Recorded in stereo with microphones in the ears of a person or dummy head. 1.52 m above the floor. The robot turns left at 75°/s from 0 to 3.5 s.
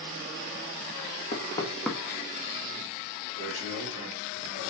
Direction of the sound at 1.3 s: 50° left (ahead or behind).